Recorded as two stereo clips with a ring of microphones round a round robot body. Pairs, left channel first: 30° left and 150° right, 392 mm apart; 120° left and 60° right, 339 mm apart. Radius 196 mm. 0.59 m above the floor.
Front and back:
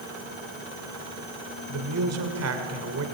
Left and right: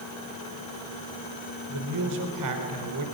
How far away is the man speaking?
About 2.5 m.